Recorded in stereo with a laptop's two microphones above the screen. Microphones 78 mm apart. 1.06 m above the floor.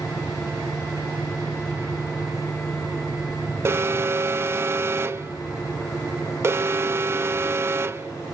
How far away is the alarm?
About 0.7 m.